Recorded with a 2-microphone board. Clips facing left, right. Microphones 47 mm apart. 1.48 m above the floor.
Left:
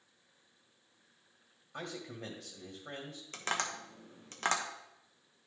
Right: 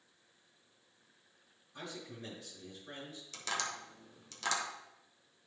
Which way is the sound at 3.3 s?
40° left (ahead or behind).